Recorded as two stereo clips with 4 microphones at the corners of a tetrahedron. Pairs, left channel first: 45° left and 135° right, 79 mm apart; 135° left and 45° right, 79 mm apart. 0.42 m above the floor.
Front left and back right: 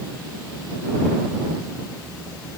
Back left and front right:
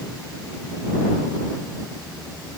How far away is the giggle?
I don't hear a giggle.